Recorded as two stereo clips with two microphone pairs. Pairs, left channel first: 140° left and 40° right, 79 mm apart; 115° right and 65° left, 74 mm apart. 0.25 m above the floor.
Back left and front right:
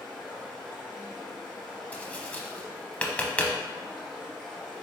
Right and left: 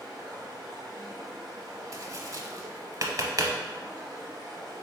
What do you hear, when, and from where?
0.0 s running water: 55° left, 1.8 m
1.9 s tapping: 70° left, 0.6 m